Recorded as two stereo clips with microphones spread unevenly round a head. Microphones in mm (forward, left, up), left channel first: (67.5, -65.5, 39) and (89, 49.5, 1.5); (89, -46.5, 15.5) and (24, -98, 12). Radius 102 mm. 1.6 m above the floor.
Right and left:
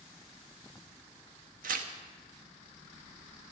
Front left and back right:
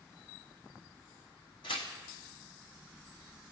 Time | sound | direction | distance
1.6 | tearing paper | 100° left | 0.9 m